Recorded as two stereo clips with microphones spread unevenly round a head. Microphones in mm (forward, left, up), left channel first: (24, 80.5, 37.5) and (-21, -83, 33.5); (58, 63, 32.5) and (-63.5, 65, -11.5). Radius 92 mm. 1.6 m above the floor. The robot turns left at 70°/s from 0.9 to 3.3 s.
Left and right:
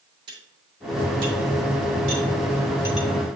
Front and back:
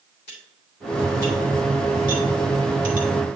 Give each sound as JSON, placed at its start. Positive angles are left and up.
{"t": 0.3, "sound": "cutlery clinking", "azimuth_deg": -45, "distance_m": 2.5}